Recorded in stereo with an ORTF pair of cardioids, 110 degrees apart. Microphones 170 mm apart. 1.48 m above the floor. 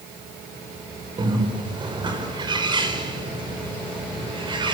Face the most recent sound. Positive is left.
turn(degrees=-30)